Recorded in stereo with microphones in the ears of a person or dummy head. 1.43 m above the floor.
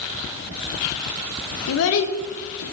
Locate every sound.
1.7 s a child speaking: 80° left, 1.2 m